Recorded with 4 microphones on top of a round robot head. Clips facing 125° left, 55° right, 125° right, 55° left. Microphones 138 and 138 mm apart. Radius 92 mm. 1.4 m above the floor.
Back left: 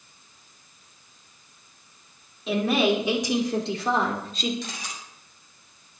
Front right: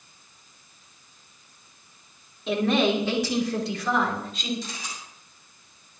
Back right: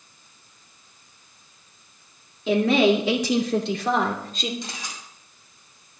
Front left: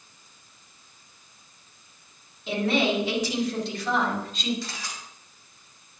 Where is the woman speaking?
145° right, 3 m; by 4.5 s straight behind, 3.5 m.